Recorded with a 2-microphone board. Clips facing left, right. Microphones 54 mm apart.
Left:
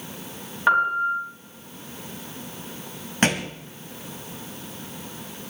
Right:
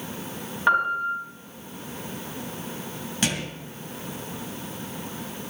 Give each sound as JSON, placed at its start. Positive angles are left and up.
{"t": 0.7, "sound": "a piano", "side_deg": 5, "distance_m": 7.0}
{"t": 3.2, "sound": "a thud", "side_deg": 45, "distance_m": 1.6}